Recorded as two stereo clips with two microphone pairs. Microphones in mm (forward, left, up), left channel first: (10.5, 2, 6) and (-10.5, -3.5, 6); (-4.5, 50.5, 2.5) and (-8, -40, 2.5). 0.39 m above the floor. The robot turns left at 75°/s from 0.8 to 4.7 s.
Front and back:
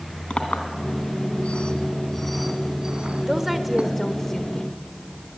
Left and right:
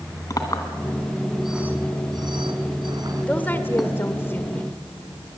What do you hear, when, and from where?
0.3 s a clink: 45° left, 2.5 m; by 3.9 s 170° left, 2.5 m
3.3 s a woman speaking: 145° left, 1.4 m; by 4.8 s 35° left, 1.4 m